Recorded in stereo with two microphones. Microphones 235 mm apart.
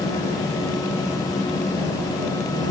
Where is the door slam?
I don't hear a door slam.